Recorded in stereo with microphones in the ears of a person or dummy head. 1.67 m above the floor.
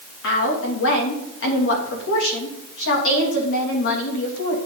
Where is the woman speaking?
65° left (ahead or behind), 3 m.